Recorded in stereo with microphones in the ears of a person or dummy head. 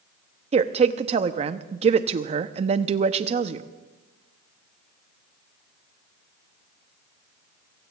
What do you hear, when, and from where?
0.5 s a woman speaking: 40° right (ahead or behind), 0.7 m